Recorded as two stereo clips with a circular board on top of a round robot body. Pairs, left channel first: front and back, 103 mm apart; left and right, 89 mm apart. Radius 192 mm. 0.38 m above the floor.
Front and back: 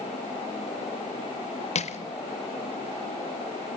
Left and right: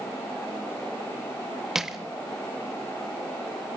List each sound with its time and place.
1.8 s crushing: 5° right, 1.1 m